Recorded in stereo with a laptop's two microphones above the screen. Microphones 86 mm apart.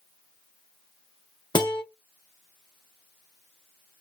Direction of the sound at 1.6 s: 60° left (ahead or behind).